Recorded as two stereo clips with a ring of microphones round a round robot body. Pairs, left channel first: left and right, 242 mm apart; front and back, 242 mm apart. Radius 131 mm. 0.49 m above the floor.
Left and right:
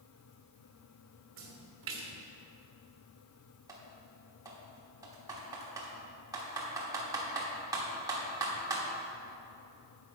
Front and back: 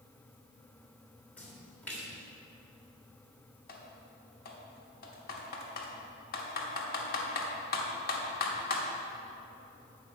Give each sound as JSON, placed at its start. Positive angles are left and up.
{"t": 1.4, "sound": "a splash", "azimuth_deg": -85, "distance_m": 1.7}
{"t": 3.7, "sound": "typing on a keyboard", "azimuth_deg": -20, "distance_m": 1.3}